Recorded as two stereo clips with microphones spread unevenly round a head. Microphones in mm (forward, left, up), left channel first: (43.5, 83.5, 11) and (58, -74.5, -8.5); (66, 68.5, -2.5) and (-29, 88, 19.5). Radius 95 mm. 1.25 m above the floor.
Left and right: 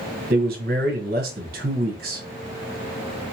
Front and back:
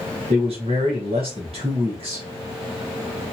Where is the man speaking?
130° right, 0.8 m.